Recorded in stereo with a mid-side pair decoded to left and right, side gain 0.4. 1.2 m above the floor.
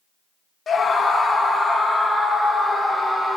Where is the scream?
50° left, 0.9 m; by 3.4 s 25° left, 3.5 m.